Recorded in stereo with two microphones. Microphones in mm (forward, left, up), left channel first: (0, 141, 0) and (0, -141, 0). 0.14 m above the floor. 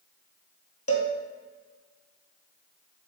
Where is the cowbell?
55° left (ahead or behind), 1.2 m.